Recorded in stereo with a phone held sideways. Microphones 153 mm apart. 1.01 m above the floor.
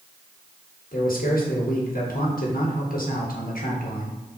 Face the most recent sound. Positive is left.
turn(degrees=70)  # may be behind; listen again after turning